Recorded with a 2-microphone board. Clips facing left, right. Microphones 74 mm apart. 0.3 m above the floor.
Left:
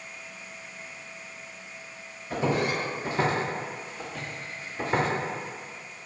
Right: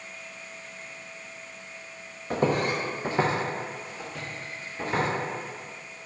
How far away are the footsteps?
About 0.7 m.